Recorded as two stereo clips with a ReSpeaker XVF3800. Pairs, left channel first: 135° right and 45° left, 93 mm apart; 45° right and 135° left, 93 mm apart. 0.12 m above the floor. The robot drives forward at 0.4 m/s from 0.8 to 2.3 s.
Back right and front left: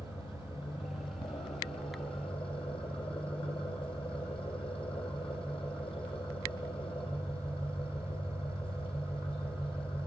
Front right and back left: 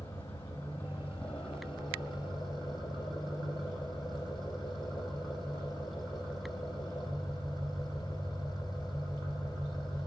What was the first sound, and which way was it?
An engine running, 120° right.